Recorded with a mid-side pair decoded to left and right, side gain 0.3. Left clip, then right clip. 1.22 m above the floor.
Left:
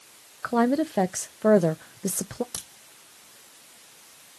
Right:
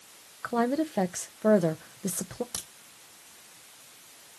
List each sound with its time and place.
0.4 s a woman speaking: 35° left, 0.7 m
2.5 s a crack: 5° left, 2 m